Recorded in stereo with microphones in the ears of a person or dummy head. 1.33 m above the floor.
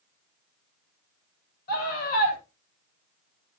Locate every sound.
1.7 s a scream: 50° left (ahead or behind), 7 m